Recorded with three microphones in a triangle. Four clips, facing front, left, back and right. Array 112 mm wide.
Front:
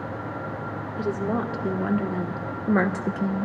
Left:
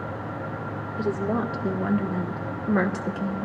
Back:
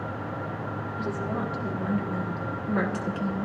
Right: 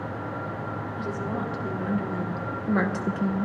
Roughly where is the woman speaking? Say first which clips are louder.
Left 7 dB, front 5 dB; ahead left.